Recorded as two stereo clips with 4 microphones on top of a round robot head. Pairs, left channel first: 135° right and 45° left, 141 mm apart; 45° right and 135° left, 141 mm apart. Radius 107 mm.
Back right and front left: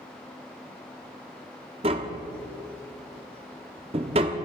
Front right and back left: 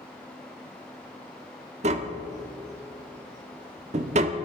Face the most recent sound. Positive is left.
turn(degrees=95)